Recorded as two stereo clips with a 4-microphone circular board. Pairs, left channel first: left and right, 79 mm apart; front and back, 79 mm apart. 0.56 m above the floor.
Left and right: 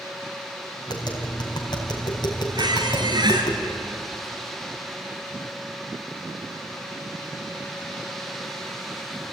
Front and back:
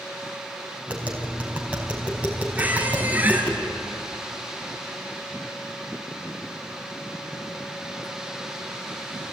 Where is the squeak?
110° right, 3 m.